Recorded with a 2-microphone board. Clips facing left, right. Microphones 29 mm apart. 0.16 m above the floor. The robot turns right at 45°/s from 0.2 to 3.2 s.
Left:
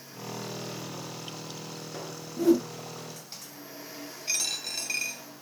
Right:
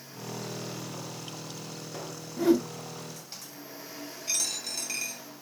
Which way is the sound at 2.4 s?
30° right (ahead or behind).